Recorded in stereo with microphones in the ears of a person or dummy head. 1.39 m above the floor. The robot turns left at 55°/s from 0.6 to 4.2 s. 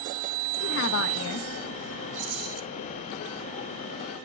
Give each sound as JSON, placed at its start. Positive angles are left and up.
{"t": 0.6, "sound": "a woman speaking", "azimuth_deg": 130, "distance_m": 1.4}
{"t": 2.1, "sound": "a rattle", "side_deg": -45, "distance_m": 1.1}